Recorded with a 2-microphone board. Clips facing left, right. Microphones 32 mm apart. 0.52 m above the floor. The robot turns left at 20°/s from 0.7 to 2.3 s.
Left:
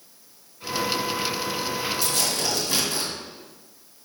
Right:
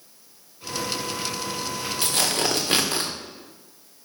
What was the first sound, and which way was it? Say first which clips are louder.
Tearing paper: right 2 dB; 50° right (ahead or behind).